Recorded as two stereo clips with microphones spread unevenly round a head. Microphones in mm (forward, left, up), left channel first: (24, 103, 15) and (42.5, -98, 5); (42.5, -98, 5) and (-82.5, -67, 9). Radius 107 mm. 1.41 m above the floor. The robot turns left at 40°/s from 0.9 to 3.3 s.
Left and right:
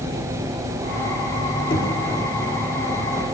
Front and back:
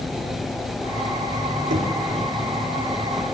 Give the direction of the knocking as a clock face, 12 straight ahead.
7 o'clock.